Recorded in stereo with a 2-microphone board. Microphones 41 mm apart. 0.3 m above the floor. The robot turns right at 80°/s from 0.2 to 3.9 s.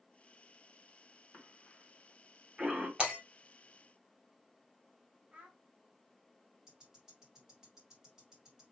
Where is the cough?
50° left (ahead or behind), 1.9 m; by 2.9 s 30° right (ahead or behind), 1.9 m.